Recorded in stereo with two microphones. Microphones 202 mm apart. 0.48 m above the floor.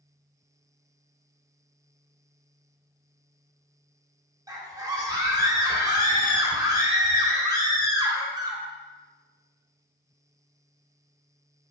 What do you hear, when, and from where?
4.5 s a scream: 20° right (ahead or behind), 1.0 m